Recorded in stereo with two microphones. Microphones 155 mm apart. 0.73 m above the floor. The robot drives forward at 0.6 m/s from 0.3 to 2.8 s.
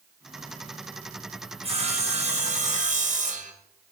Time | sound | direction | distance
1.6 | sawing | 40° right (ahead or behind) | 2.5 m